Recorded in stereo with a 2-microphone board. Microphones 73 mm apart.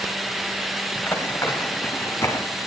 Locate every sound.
0.9 s running footsteps: 20° left (ahead or behind), 5.5 m; by 2.5 s 30° left (ahead or behind), 5 m